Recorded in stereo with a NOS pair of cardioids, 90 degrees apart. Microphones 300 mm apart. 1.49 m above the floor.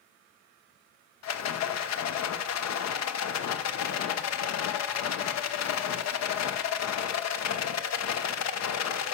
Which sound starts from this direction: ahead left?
A rattle, at 1.2 s.